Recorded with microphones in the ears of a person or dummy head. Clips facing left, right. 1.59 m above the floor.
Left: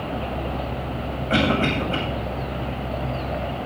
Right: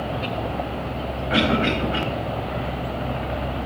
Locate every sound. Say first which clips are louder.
1.3 s a cough: even; 40° left (ahead or behind), 9 m